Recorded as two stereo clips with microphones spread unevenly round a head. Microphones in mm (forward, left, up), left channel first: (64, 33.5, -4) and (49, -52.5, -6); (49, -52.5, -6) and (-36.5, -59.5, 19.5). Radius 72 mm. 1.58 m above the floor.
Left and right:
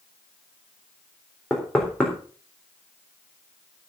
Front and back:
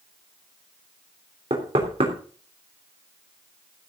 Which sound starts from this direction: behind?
Knocking, at 1.5 s.